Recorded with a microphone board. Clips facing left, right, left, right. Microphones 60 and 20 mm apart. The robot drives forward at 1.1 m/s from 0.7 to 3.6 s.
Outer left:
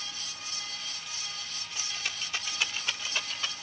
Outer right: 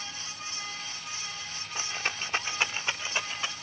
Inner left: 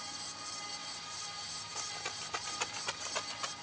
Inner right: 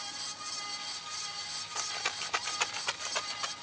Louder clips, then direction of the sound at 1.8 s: Outer right 5 dB, inner right 7 dB; 35° right (ahead or behind).